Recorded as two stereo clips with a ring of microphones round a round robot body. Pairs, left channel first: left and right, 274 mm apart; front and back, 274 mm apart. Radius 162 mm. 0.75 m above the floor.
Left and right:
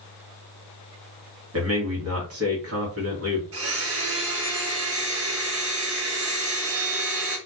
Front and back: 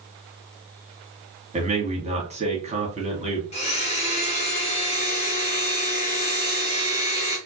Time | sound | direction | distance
1.5 | a man speaking | 115° right | 1.5 m
3.5 | a blender | 65° right | 1.2 m